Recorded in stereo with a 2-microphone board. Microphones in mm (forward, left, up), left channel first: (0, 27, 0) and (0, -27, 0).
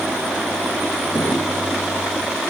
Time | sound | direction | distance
1.1 | a drawer | 55° left (ahead or behind) | 2 m